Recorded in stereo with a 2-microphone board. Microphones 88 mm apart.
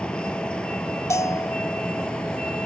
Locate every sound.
0.0 s a vehicle: 10° left (ahead or behind)
1.1 s a bell: 35° left (ahead or behind)